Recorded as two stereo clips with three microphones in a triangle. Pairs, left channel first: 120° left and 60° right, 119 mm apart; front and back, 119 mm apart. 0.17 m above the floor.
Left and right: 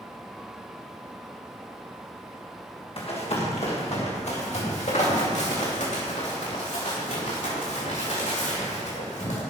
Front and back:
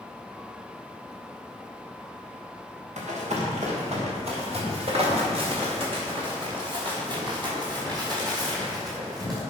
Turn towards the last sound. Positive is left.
turn(degrees=120)